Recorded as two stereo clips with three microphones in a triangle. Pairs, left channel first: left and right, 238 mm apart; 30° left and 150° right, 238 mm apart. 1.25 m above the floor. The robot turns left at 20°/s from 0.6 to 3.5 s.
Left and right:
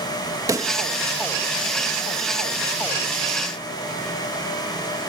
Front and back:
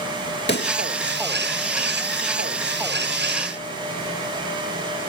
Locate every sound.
0.5 s a pop: 15° right; by 0.8 s 20° right